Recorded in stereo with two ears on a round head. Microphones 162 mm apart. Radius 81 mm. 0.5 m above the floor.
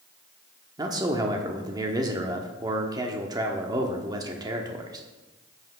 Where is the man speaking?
20° right (ahead or behind), 1.1 m.